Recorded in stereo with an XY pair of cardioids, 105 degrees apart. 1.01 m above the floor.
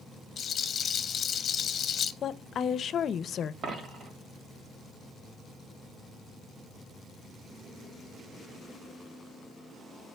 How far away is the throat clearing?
I don't hear throat clearing.